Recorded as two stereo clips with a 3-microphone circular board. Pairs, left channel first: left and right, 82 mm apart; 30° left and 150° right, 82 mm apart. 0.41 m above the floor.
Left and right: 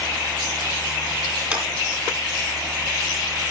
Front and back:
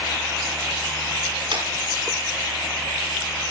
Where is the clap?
160° right, 4.5 m.